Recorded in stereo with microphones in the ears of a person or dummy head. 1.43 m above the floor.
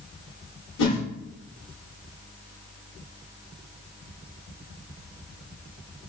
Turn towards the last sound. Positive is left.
turn(degrees=70)  # may be behind; listen again after turning